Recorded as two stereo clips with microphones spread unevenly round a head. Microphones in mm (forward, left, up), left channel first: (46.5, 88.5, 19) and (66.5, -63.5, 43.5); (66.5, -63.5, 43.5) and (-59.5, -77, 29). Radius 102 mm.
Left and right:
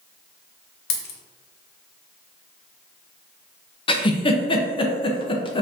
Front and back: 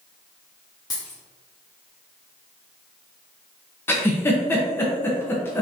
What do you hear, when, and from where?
0.9 s a dropped coin: 75° left, 0.6 m
3.9 s a giggle: 80° left, 0.7 m